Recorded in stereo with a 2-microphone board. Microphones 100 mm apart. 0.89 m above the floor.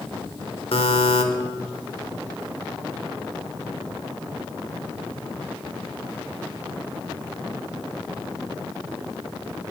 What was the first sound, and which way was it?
A buzzer, 65° left (ahead or behind).